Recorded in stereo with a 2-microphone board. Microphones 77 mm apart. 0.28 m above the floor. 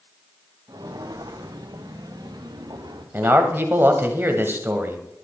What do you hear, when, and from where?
0.7 s footsteps: 60° right (ahead or behind), 1.8 m; by 3.0 s 70° right (ahead or behind), 3.5 m
3.1 s a man speaking: 30° right (ahead or behind), 1.5 m